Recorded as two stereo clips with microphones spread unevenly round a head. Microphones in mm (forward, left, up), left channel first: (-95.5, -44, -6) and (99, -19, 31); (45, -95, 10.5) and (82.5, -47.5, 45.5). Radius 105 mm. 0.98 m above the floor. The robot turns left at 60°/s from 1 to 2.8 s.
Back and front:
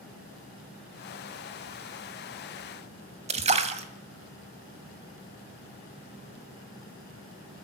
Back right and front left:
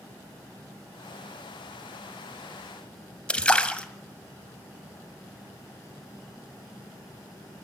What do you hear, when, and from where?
3.3 s a splash: 45° right, 2 m